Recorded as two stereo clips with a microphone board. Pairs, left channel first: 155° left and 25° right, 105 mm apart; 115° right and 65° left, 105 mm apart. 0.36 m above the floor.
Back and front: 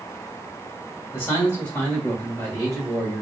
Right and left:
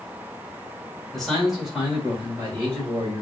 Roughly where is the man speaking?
Behind.